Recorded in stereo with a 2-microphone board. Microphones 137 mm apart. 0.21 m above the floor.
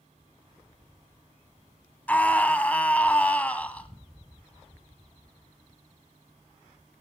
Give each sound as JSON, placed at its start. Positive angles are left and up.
{"t": 2.1, "sound": "a scream", "side_deg": 10, "distance_m": 1.2}